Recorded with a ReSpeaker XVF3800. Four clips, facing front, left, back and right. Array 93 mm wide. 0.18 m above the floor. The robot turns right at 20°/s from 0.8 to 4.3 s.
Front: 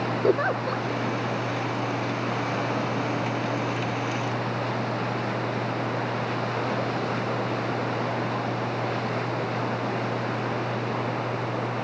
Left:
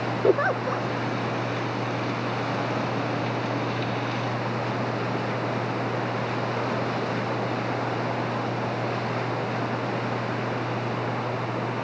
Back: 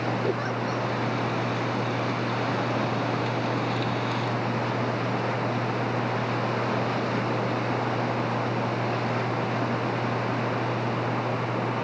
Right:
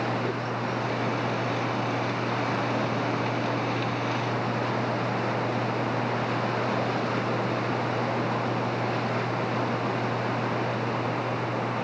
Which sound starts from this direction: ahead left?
A giggle, at 0.2 s.